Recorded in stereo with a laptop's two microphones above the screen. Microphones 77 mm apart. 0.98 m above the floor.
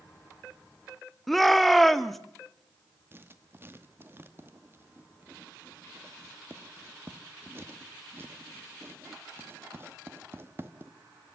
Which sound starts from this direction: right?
Writing, at 3.1 s.